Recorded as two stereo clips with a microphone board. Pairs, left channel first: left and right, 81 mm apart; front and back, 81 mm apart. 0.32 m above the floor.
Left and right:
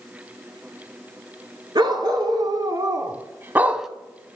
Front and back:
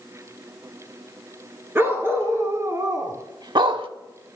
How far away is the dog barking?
About 1.3 m.